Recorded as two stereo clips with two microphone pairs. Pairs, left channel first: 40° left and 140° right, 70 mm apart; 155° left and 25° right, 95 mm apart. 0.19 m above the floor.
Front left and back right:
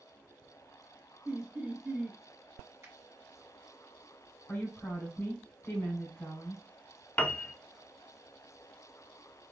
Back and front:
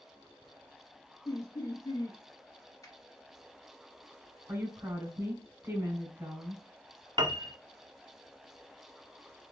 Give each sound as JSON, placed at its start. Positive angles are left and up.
{"t": 1.2, "sound": "laughter", "azimuth_deg": 160, "distance_m": 1.4}
{"t": 2.8, "sound": "a finger snap", "azimuth_deg": -170, "distance_m": 1.5}
{"t": 4.5, "sound": "a woman speaking", "azimuth_deg": 10, "distance_m": 1.8}
{"t": 7.2, "sound": "a piano", "azimuth_deg": -30, "distance_m": 0.6}